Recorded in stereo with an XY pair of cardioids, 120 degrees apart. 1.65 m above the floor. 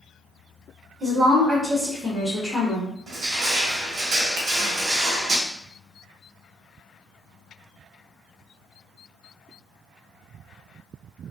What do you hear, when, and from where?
1.0 s a woman speaking: 35° right, 1.1 m; by 3.0 s 35° left, 0.9 m
3.1 s crushing: 50° right, 1.3 m
4.4 s a finger snap: 70° right, 0.9 m